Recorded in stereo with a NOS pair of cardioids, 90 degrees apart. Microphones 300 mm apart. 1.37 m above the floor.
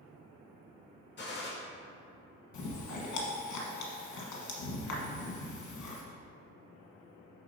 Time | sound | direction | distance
1.2 | a gunshot | 35° left | 2 m
2.5 | chewing | 70° left | 1.5 m